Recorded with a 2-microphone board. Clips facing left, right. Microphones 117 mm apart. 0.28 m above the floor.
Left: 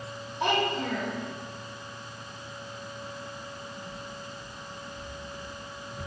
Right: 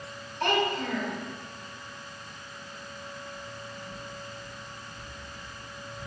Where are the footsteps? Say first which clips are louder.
Left 1 dB; 15° left (ahead or behind), 4 m; by 6.1 s 60° left (ahead or behind), 2 m.